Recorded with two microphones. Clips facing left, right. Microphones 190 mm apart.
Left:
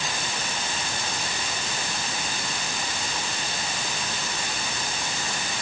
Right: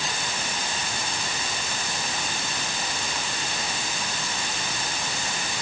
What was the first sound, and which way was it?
Only background noise.